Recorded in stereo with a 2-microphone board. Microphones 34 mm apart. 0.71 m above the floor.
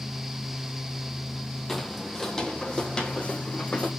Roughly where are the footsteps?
Centre.